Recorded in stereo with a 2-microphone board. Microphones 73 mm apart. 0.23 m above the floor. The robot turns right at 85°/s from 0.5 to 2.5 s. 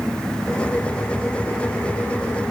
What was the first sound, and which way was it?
Only background noise.